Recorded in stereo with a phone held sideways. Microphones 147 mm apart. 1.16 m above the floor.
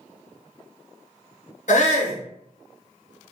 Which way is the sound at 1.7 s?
60° left (ahead or behind).